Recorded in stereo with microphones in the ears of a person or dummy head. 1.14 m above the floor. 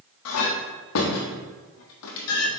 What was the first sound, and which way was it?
A clink, 65° left (ahead or behind).